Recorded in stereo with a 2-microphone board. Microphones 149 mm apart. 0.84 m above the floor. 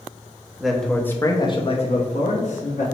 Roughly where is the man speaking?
Centre.